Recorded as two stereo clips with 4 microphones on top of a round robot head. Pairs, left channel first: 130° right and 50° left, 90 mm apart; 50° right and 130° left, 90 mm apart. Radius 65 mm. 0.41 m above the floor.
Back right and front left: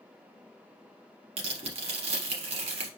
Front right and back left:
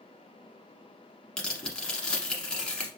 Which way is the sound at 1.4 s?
35° left.